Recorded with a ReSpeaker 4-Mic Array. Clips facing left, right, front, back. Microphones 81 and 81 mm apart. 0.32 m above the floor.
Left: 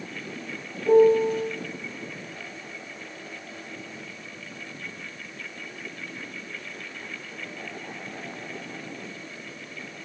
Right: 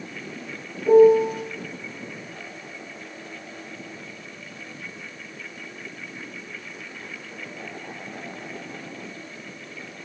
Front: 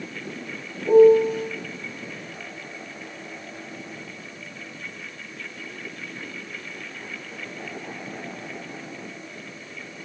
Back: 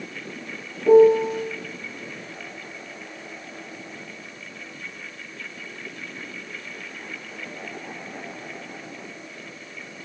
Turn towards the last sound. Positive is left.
turn(degrees=-175)